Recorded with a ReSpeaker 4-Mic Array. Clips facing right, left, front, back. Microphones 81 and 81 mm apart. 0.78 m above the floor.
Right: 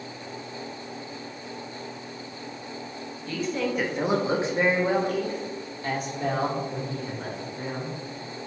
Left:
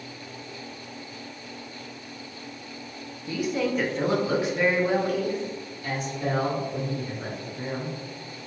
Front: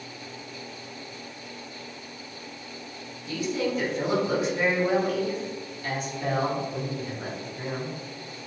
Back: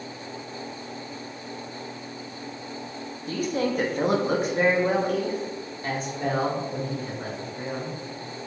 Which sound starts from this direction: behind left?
A woman speaking, at 3.3 s.